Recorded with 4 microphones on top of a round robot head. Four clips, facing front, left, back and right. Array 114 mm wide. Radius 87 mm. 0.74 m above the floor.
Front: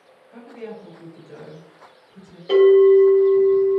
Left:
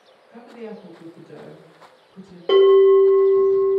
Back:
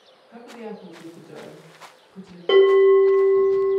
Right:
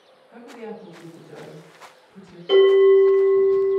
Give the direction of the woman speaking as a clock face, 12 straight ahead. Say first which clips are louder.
Even, front 1 dB; 5 o'clock.